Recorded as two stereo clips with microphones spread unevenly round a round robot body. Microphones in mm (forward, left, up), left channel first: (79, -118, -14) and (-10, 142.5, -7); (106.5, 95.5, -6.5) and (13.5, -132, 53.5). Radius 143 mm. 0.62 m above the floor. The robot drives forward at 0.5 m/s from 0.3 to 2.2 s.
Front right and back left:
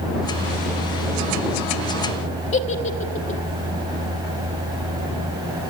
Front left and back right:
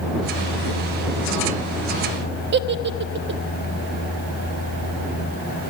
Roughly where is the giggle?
Right.